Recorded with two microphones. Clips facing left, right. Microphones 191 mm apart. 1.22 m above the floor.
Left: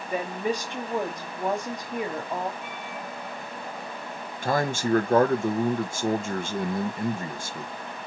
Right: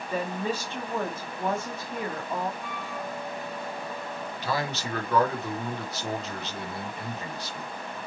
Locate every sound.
0.1 s a woman speaking: 15° left (ahead or behind), 2 m
2.6 s a flute: 40° right (ahead or behind), 3.5 m
4.4 s a man speaking: 50° left (ahead or behind), 1.0 m